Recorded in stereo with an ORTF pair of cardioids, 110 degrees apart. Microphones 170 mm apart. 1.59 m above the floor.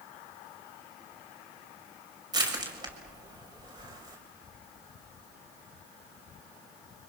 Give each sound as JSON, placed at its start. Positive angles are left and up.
{"t": 2.3, "sound": "crushing", "azimuth_deg": -25, "distance_m": 6.5}